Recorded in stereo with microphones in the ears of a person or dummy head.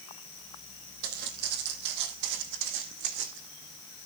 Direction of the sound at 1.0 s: 50° right (ahead or behind).